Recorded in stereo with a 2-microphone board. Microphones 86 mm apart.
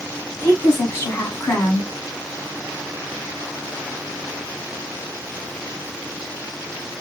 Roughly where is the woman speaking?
Left.